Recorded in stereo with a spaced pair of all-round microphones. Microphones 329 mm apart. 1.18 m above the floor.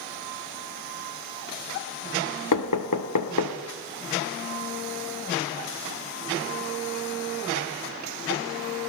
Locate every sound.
2.5 s knocking: 70° left (ahead or behind), 0.8 m